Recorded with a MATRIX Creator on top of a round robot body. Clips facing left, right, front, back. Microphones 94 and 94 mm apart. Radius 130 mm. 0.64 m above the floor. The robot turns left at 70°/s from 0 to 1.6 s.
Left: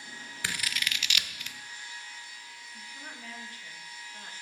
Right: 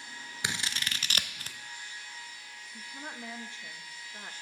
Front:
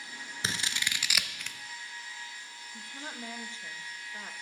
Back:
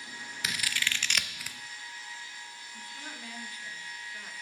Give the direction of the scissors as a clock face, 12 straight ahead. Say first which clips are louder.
Even, back 1 dB; 1 o'clock.